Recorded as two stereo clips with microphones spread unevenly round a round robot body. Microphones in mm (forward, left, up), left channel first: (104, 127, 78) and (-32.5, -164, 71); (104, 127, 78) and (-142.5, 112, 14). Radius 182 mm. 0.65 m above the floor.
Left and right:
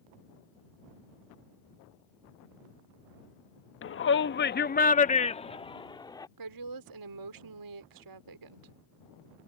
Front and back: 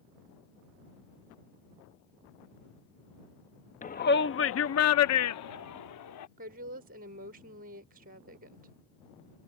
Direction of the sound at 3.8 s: 65° left.